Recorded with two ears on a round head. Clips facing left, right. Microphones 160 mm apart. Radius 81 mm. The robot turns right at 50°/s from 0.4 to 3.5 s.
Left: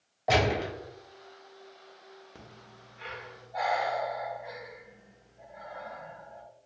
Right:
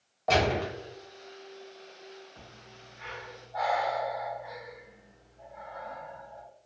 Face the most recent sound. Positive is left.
turn(degrees=20)  # may be behind; listen again after turning